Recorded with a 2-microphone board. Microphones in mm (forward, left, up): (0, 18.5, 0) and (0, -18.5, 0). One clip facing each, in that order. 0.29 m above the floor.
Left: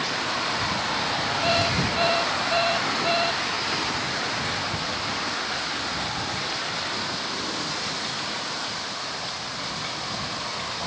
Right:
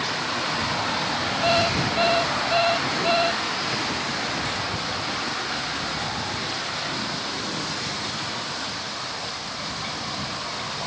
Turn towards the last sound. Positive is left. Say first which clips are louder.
# right 3 dB
turn(degrees=-10)  # may be behind; listen again after turning